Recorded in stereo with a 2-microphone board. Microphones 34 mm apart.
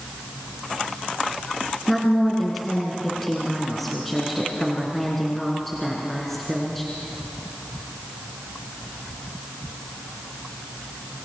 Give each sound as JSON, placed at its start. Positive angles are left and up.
{"t": 1.9, "sound": "a woman speaking", "side_deg": 5, "distance_m": 3.5}